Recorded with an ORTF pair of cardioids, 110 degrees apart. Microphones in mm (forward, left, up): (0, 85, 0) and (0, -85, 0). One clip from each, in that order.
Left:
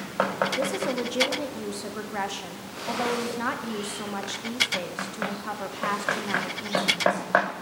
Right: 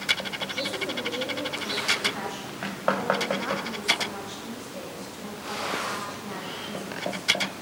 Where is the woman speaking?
50° left, 1.6 m.